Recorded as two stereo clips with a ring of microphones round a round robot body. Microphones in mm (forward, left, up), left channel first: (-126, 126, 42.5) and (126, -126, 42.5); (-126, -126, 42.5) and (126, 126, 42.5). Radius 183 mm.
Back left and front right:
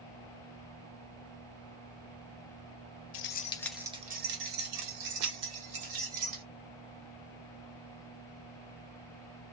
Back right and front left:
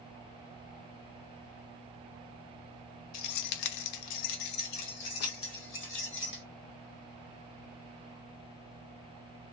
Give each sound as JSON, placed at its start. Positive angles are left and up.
{"t": 3.1, "sound": "keys jangling", "azimuth_deg": -175, "distance_m": 0.5}